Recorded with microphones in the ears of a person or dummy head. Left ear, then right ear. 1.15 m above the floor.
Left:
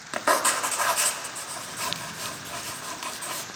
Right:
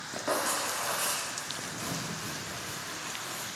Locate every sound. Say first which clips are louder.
0.1 s writing: left 8 dB; 40° left (ahead or behind), 0.9 m